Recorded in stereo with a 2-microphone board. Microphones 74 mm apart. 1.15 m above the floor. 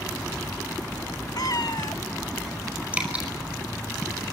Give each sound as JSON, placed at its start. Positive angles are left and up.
{"t": 1.4, "sound": "a cat meowing", "side_deg": 60, "distance_m": 1.3}
{"t": 2.9, "sound": "dripping", "side_deg": -20, "distance_m": 5.0}